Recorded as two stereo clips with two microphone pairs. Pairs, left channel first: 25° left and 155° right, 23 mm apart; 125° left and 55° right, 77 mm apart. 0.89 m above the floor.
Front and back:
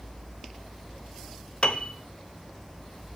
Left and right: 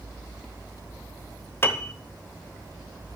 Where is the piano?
65° left, 1.1 m.